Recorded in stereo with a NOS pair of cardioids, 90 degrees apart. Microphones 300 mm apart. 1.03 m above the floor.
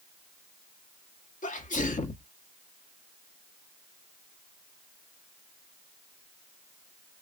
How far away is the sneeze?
About 1.5 m.